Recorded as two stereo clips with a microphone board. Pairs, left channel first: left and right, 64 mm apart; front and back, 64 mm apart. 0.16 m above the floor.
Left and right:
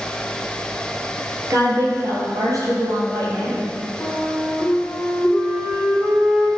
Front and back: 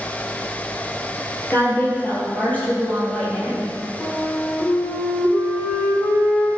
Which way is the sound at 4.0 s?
25° left.